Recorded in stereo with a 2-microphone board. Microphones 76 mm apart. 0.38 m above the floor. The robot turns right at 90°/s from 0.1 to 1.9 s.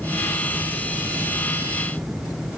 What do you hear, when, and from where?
Only background noise.